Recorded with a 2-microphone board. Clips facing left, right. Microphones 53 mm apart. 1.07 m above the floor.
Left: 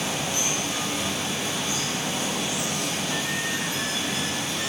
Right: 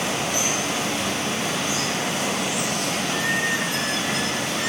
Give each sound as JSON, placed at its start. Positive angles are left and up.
{"t": 0.0, "sound": "running water", "side_deg": -85, "distance_m": 5.5}